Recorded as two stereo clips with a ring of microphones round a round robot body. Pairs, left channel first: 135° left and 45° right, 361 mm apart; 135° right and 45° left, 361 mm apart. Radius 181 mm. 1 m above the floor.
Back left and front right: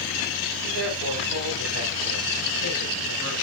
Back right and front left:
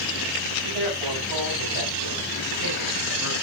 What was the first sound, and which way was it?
A man speaking, 15° left.